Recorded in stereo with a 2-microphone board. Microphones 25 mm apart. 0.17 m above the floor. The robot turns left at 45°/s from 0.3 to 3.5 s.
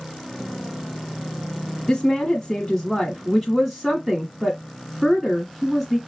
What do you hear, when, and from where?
1.9 s a woman speaking: 20° left (ahead or behind), 1.1 m; by 6.0 s 5° right (ahead or behind), 1.1 m